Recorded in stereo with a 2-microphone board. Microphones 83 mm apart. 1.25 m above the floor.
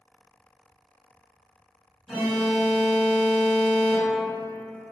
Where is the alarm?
30° right (ahead or behind), 0.7 m.